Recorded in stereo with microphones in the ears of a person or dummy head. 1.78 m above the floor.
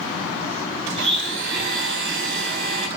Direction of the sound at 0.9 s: 75° right (ahead or behind).